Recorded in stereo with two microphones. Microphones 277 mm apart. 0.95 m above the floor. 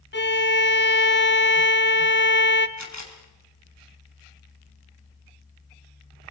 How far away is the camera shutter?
About 3.5 m.